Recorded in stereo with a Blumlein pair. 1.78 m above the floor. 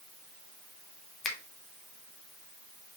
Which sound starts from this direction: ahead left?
A finger snap, at 1.2 s.